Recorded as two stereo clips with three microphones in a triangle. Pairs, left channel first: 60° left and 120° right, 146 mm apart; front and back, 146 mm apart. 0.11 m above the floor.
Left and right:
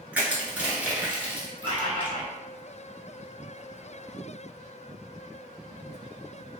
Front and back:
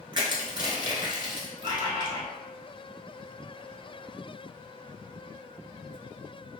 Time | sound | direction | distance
0.1 | crushing | 170° left | 0.8 m
1.6 | a bird | 160° right | 0.8 m